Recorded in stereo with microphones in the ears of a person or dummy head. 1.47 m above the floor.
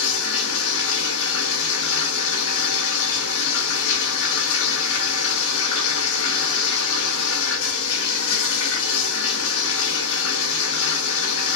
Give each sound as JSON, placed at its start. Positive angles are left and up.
{"t": 0.0, "sound": "running water", "side_deg": 75, "distance_m": 4.0}